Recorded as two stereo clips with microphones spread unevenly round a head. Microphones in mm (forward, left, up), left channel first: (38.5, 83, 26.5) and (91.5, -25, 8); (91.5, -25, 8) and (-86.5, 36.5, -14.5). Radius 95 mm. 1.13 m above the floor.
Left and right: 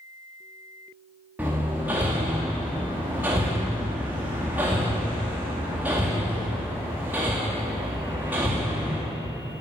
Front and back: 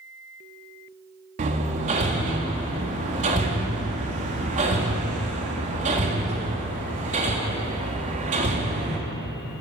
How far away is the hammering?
About 1.8 m.